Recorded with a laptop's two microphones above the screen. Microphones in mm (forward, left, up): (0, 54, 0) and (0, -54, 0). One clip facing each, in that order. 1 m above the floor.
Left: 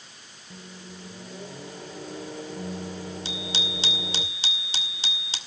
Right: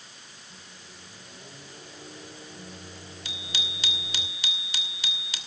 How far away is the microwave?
About 2.5 m.